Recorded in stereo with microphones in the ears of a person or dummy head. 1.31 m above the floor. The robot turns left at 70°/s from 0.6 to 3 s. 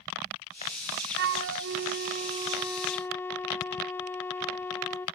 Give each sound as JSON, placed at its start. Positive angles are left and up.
{"t": 1.2, "sound": "a flute", "azimuth_deg": -65, "distance_m": 0.6}